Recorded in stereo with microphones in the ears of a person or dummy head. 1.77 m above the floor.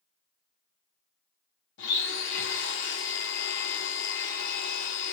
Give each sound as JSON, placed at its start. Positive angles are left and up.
{"t": 1.8, "sound": "a blender", "side_deg": 75, "distance_m": 0.6}